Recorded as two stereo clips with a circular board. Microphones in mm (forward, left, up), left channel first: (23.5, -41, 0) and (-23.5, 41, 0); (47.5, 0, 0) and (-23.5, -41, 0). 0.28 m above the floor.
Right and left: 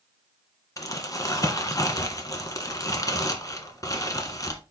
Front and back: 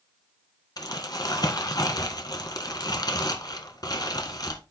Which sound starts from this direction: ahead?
Crumpling, at 0.8 s.